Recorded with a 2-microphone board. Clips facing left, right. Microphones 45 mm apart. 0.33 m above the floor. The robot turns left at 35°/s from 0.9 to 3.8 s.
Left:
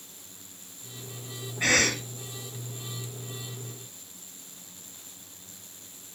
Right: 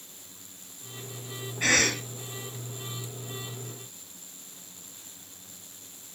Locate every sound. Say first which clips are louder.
1.6 s a cough: even; centre (ahead or behind), 2 m; by 2.0 s 10° right (ahead or behind), 2 m